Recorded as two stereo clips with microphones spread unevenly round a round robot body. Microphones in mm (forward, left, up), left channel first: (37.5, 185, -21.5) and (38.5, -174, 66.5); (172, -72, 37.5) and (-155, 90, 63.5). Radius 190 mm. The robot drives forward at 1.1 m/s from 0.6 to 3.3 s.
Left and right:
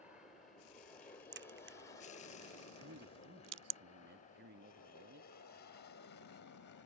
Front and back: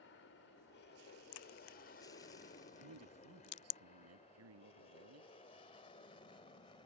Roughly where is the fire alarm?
I don't hear a fire alarm.